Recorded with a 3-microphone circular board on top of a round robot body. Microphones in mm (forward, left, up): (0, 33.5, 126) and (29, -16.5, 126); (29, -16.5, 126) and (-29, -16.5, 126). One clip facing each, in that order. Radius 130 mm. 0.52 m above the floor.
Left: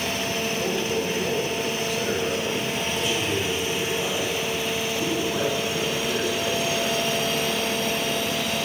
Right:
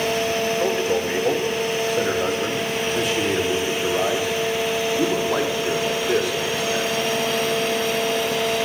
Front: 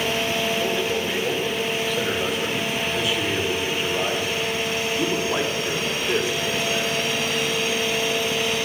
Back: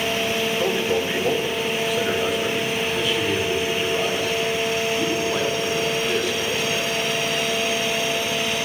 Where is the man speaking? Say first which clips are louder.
Right 4 dB, back 2 dB; 110° right, 2.5 m; by 7.0 s 60° right, 4.5 m.